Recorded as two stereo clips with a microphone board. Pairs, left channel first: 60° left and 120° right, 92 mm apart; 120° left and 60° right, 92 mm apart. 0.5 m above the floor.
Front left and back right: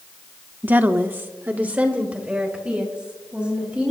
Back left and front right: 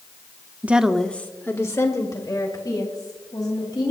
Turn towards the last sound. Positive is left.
turn(degrees=160)